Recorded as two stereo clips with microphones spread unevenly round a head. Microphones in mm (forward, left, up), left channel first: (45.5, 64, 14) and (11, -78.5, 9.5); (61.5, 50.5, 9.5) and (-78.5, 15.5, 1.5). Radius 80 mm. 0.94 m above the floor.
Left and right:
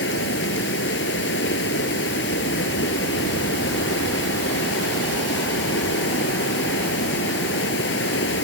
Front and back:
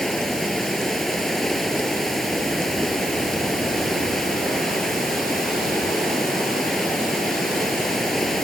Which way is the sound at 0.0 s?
105° left.